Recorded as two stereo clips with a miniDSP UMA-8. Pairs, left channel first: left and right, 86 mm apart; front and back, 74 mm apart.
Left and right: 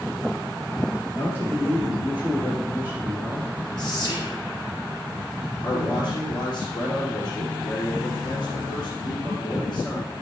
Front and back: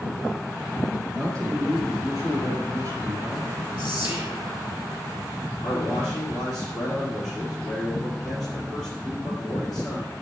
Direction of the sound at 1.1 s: 155° right.